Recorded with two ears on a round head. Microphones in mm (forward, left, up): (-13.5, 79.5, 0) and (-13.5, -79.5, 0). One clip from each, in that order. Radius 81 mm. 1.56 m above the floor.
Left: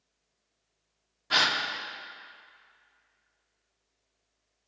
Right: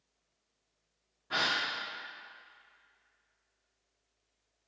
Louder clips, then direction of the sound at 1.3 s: Left 6 dB; 80° left.